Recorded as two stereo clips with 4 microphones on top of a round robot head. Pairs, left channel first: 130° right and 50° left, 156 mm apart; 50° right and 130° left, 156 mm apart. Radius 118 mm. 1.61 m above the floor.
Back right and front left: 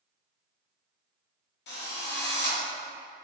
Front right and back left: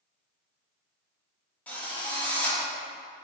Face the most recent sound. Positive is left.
turn(degrees=-130)